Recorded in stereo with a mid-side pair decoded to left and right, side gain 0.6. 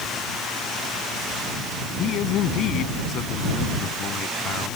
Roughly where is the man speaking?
Ahead left.